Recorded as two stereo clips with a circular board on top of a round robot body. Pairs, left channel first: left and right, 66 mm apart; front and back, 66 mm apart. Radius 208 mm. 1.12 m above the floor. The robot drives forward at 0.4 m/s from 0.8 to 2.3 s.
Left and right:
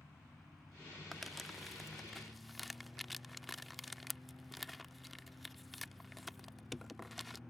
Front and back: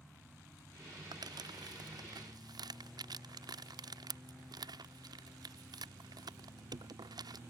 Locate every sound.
1.1 s crumpling: straight behind